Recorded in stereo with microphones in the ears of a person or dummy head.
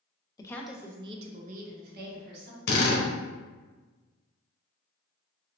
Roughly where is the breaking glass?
No breaking glass in this recording.